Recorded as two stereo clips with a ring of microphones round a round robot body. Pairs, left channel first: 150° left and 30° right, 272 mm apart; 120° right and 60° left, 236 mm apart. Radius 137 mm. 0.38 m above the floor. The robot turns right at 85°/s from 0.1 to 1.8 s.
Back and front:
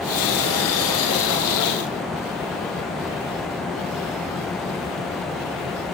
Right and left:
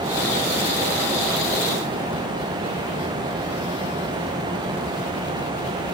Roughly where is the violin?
No violin in this recording.